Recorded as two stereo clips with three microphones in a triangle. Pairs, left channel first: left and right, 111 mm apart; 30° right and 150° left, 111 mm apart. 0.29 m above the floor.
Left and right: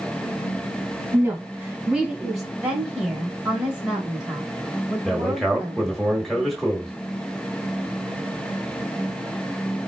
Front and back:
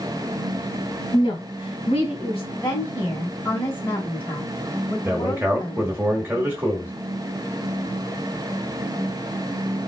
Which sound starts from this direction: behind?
A man speaking, at 5.0 s.